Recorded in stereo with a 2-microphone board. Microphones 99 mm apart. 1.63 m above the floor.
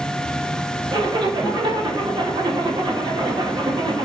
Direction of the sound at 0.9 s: 50° right (ahead or behind).